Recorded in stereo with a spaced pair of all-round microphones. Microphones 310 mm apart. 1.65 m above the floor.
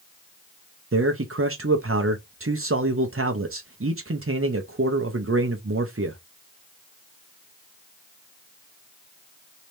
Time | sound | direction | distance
0.9 | a man speaking | 45° right (ahead or behind) | 0.6 m